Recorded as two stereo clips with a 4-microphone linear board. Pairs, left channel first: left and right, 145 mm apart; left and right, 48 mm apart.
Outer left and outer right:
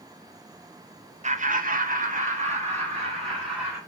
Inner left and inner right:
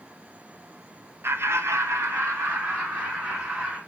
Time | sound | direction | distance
1.2 | laughter | 55° right (ahead or behind) | 0.8 m